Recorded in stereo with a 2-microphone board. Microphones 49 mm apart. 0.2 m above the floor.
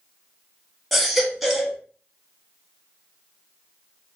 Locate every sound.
0.9 s a baby crying: centre (ahead or behind), 0.7 m